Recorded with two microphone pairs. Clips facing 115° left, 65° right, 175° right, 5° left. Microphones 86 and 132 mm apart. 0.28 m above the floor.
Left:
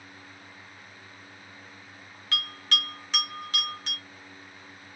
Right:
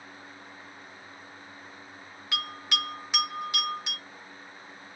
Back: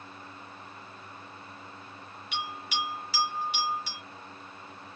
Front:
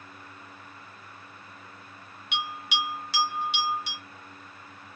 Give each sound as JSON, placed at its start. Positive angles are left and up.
{"t": 2.3, "sound": "a bell", "azimuth_deg": 10, "distance_m": 2.0}